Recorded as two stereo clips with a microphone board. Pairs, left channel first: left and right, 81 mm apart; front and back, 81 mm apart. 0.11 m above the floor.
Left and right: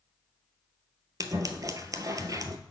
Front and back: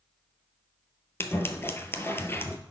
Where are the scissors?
55° right, 0.6 m.